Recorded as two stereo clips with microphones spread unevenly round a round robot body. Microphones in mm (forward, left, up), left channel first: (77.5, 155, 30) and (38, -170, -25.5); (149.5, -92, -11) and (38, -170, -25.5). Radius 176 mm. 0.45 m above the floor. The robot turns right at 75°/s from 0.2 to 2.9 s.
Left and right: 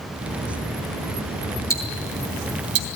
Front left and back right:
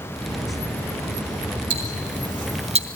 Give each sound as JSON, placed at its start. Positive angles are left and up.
{"t": 1.7, "sound": "ticking", "azimuth_deg": 170, "distance_m": 2.5}